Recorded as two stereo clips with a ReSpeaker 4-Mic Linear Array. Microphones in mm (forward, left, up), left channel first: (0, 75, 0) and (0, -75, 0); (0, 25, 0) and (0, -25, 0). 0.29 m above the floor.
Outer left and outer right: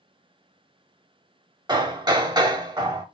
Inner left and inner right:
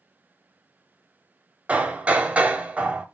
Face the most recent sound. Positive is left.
turn(degrees=-30)  # may be behind; listen again after turning